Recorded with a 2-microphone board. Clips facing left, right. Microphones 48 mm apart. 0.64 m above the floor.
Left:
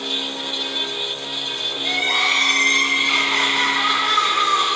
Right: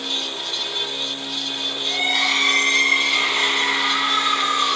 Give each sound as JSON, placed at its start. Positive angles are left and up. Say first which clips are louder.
{"t": 1.8, "sound": "crying", "louder": "left 2 dB", "side_deg": 85, "distance_m": 3.5}